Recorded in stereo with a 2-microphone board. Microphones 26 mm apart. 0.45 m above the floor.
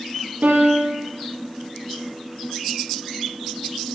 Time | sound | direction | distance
0.4 | a piano | 90° right | 3.5 m